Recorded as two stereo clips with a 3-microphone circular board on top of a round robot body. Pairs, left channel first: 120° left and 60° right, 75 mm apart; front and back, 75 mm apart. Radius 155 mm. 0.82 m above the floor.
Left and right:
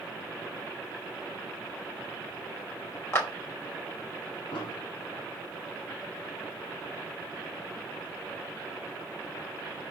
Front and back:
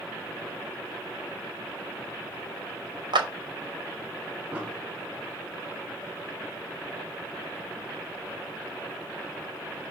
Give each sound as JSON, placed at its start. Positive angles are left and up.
{"t": 3.1, "sound": "a clap", "azimuth_deg": 175, "distance_m": 3.0}
{"t": 4.5, "sound": "an explosion", "azimuth_deg": 105, "distance_m": 2.0}